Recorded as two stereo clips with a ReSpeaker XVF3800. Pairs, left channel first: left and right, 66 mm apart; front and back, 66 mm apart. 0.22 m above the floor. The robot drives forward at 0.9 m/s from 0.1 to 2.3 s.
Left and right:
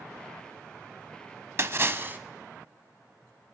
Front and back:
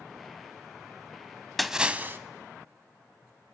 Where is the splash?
90° right, 0.7 m; by 2.2 s 140° right, 0.9 m.